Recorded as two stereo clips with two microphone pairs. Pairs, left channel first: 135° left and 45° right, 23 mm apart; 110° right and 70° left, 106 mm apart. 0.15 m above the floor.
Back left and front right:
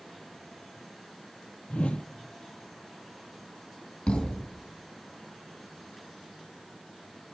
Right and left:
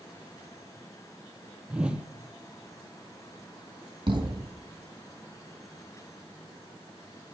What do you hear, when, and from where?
1.7 s a whoosh: 150° left, 0.6 m
4.1 s a thud: 115° left, 2.5 m